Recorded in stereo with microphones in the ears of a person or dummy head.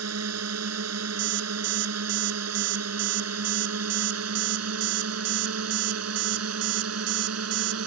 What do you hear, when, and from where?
0.0 s a drone: 85° right; by 7.9 s 80° right
1.2 s an alarm clock: 65° right (ahead or behind)